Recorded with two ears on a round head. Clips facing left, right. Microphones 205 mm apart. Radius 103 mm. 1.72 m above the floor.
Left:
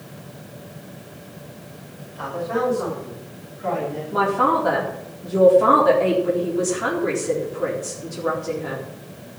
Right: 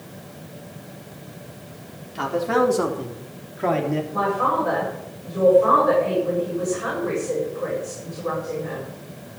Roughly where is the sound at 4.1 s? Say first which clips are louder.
Left 3 dB; left.